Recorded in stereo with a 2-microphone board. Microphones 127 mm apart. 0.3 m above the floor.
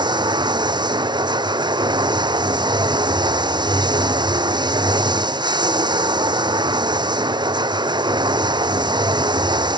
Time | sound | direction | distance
0.0 | running water | 40° right (ahead or behind) | ?